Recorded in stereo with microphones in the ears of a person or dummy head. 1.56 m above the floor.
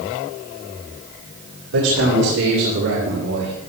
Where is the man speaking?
85° right, 3.5 m; by 3.5 s 55° right (ahead or behind), 2 m.